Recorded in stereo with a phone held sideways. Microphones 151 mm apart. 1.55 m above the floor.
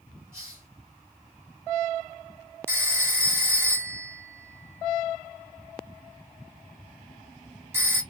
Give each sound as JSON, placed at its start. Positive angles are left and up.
{"t": 0.3, "sound": "a hiss", "side_deg": -15, "distance_m": 3.5}
{"t": 2.7, "sound": "a phone ringing", "side_deg": -15, "distance_m": 1.5}